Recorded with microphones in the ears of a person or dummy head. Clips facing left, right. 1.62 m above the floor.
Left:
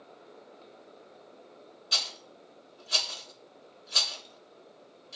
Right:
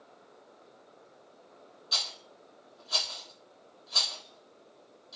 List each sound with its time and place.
1.9 s a rattle: 35° left (ahead or behind), 0.7 m